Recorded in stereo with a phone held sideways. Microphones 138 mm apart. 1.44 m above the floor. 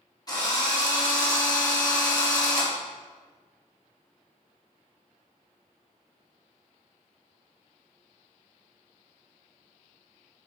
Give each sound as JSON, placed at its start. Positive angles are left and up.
{"t": 0.3, "sound": "a drill", "side_deg": 30, "distance_m": 3.0}